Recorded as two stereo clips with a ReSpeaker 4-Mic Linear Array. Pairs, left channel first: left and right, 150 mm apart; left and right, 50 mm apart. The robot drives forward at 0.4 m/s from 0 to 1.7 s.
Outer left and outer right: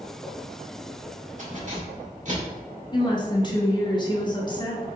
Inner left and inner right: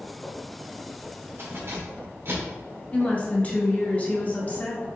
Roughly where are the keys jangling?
Right.